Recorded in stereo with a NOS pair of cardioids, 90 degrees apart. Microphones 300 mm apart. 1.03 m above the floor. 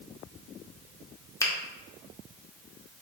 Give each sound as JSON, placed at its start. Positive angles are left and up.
{"t": 1.4, "sound": "a finger snap", "azimuth_deg": 10, "distance_m": 0.8}